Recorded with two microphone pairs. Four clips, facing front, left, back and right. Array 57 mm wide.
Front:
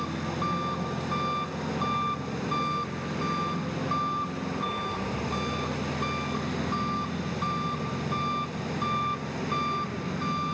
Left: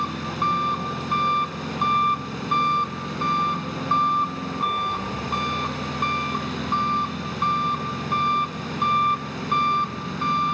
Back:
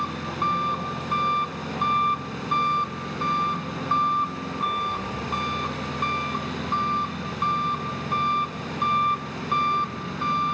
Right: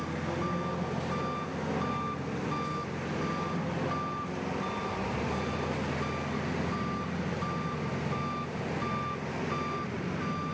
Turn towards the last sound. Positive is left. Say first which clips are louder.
# left 8 dB, back 4 dB
turn(degrees=120)